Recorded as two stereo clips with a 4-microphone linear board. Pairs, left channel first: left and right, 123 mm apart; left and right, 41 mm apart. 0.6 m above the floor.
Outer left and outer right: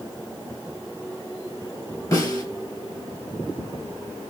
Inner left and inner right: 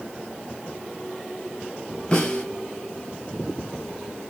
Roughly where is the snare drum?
Left.